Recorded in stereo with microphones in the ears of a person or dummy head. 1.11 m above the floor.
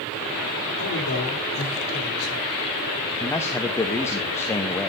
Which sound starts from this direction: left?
A man speaking, at 0.8 s.